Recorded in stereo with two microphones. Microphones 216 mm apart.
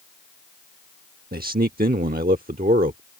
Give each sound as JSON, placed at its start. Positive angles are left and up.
{"t": 1.3, "sound": "a man speaking", "side_deg": -40}